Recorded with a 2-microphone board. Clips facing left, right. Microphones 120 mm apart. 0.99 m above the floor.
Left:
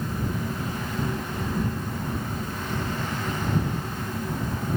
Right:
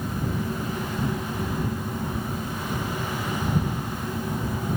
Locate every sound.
Only background noise.